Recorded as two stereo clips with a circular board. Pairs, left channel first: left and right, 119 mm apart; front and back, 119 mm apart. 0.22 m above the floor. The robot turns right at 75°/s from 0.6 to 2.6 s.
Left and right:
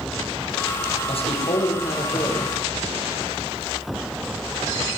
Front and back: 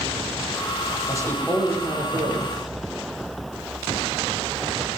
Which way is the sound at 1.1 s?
55° left.